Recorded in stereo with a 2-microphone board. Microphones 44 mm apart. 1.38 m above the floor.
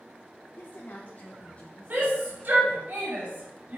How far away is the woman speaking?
About 1.7 m.